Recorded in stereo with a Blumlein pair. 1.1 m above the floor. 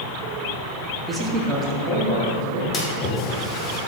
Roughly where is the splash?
Ahead left.